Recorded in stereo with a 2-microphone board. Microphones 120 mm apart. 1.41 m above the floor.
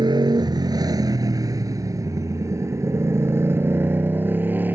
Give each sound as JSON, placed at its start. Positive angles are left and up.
{"t": 0.0, "sound": "a motorcycle", "side_deg": -35}